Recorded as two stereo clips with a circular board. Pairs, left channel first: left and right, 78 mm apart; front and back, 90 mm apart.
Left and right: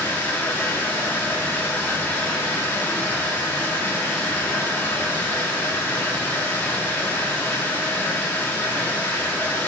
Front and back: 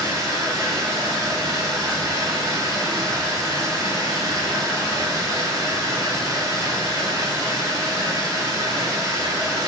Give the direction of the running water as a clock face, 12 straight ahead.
7 o'clock.